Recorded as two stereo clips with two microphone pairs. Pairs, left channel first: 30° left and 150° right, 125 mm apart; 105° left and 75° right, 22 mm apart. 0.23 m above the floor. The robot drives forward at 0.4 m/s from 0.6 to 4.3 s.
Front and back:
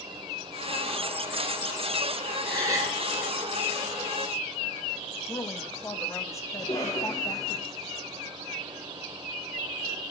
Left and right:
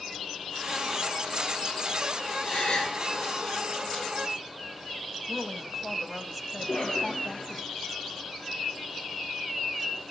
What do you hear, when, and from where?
2.4 s a gasp: 145° left, 8 m; by 3.0 s 150° left, 8 m
5.3 s a woman speaking: 10° left, 1.0 m
6.6 s a cough: 90° left, 8 m